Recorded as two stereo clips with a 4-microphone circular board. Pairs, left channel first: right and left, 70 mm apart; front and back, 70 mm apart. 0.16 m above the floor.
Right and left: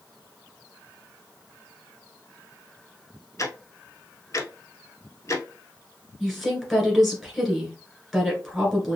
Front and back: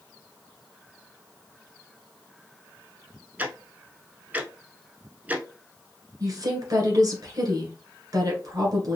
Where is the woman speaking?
Straight behind, 1.9 m.